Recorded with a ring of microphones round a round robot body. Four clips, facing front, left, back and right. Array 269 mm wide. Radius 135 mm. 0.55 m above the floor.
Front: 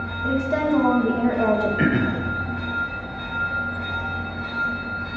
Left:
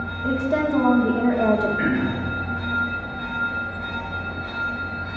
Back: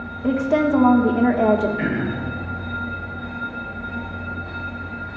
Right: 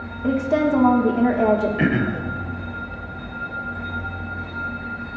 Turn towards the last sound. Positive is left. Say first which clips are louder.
# right 1 dB, front 3 dB
turn(degrees=-60)